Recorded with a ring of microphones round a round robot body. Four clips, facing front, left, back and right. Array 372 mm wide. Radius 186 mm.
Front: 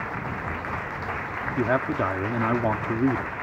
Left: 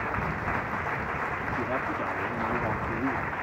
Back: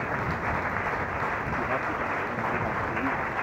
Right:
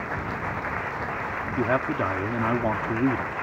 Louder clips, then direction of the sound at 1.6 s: Right 8 dB, front 9 dB; 40° right.